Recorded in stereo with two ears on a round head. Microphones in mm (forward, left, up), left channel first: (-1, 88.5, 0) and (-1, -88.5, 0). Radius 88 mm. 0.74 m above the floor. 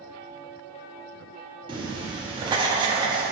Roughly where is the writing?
Right.